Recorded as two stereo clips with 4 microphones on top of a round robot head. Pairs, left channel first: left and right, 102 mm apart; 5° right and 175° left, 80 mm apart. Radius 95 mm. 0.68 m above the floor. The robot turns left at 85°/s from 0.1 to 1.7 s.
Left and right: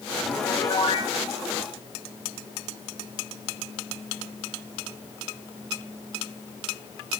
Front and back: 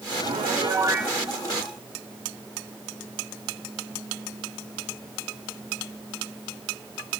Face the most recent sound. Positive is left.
turn(degrees=60)